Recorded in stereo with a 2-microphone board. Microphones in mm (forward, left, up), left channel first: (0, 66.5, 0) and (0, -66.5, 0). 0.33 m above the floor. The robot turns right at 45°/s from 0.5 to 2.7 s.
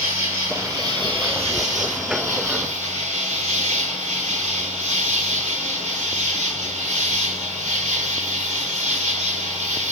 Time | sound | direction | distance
0.0 | an insect | 165° right | 4 m